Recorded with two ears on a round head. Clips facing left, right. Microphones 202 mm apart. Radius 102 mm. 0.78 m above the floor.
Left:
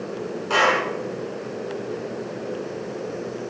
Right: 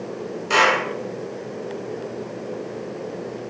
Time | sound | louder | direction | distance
0.5 | a clap | right 1 dB | 30° right (ahead or behind) | 6.5 m